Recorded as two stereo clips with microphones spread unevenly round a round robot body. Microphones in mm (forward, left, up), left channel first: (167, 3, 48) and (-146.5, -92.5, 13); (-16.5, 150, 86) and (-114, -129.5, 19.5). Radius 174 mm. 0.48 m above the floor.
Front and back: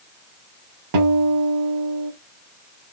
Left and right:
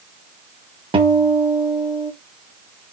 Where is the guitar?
170° right, 0.9 m.